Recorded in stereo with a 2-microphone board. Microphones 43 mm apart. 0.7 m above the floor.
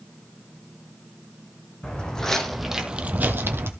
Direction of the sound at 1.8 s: 20° left (ahead or behind).